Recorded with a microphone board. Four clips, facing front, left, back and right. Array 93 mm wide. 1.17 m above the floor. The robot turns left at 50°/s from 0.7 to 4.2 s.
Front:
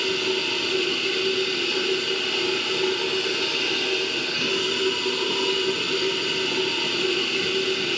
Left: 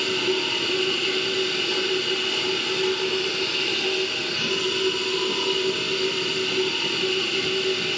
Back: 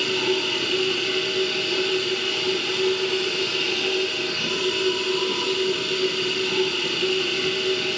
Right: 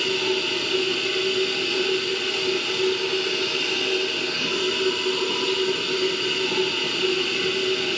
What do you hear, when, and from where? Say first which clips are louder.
0.0 s running water: even, back 2 dB; 135° left, 1.1 m; by 8.0 s 40° right, 1.1 m